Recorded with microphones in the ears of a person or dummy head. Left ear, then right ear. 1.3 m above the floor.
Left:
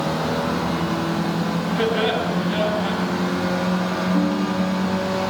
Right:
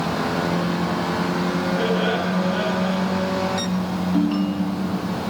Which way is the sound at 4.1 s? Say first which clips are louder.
Left 1 dB; 30° right (ahead or behind).